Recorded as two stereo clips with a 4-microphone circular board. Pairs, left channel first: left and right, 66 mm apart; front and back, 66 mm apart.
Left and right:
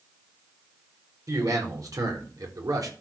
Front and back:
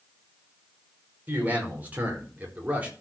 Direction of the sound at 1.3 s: 115° right.